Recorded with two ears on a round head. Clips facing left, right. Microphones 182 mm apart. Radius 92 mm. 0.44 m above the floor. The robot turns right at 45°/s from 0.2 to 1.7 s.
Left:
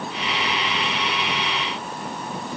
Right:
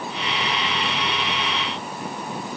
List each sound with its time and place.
Only background noise.